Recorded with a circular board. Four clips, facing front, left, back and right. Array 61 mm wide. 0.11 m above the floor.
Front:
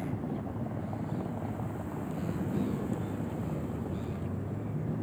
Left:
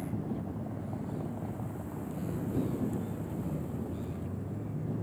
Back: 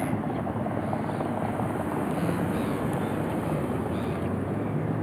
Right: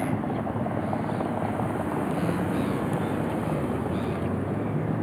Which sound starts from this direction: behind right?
A vehicle, at 0.0 s.